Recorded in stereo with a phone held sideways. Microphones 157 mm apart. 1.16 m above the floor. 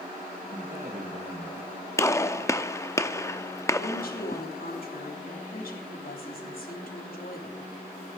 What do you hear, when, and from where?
0.5 s a man speaking: 60° right (ahead or behind), 1.7 m
2.0 s a gunshot: 20° left (ahead or behind), 0.6 m
3.8 s a woman speaking: 70° left (ahead or behind), 3.5 m